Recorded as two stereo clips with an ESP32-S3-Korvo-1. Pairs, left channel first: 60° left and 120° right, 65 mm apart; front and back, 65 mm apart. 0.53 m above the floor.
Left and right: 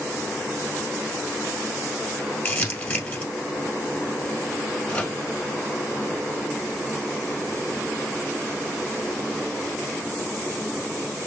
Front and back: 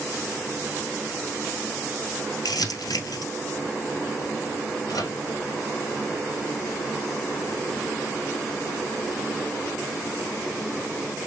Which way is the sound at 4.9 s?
10° right.